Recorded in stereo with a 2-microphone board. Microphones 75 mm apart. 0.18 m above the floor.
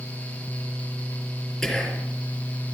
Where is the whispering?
5° left (ahead or behind), 3.5 m.